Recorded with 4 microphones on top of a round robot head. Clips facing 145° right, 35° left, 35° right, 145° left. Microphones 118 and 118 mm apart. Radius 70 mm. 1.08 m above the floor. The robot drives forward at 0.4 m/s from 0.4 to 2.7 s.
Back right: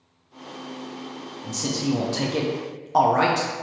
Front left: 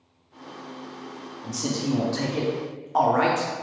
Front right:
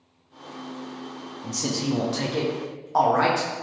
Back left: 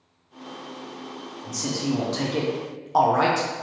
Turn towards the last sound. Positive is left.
turn(degrees=-150)